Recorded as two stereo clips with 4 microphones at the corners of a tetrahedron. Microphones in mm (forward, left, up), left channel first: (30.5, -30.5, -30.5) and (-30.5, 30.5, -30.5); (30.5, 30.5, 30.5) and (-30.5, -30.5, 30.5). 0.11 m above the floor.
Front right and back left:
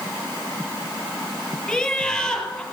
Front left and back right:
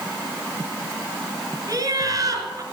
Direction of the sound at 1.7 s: 125° right.